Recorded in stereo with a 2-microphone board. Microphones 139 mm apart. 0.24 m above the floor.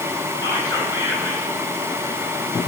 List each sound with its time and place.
0.4 s whispering: 30° left (ahead or behind), 2.5 m